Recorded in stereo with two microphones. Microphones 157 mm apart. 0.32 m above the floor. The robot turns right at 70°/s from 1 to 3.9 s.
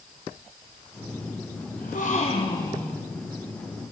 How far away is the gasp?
About 2.5 m.